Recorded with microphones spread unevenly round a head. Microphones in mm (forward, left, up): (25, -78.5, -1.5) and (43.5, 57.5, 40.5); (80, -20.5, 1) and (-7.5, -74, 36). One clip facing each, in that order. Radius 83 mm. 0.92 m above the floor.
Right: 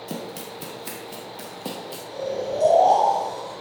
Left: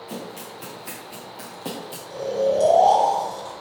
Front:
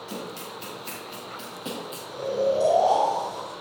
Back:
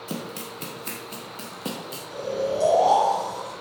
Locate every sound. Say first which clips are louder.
0.1 s running footsteps: right 2 dB, back 3 dB; 160° right, 1.9 m; by 2.0 s 165° left, 1.6 m
2.1 s snoring: left 6 dB, front 2 dB; 145° left, 3.5 m